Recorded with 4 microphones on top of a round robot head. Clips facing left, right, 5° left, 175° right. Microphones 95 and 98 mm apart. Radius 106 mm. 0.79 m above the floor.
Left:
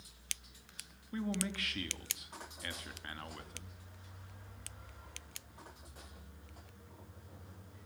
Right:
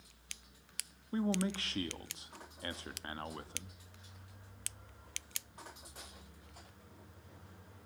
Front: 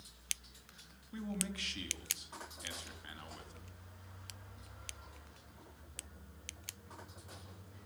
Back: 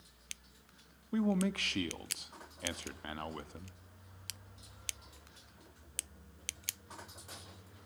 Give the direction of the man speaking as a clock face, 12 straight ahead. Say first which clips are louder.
Right 4 dB, back 10 dB; 5 o'clock.